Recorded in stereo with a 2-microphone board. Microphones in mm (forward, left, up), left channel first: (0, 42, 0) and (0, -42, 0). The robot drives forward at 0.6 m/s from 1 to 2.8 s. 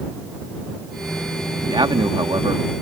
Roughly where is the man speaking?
Right.